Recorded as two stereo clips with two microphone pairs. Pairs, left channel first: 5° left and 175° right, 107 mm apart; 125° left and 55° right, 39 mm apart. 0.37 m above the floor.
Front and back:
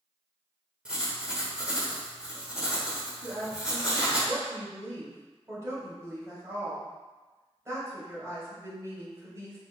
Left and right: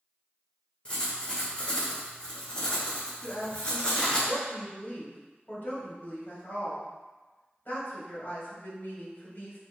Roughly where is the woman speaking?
Behind left.